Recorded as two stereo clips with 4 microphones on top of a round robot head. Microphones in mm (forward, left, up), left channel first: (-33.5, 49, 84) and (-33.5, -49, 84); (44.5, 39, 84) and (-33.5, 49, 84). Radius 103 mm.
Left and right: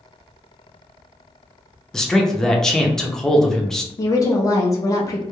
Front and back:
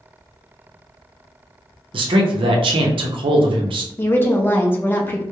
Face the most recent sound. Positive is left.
turn(degrees=50)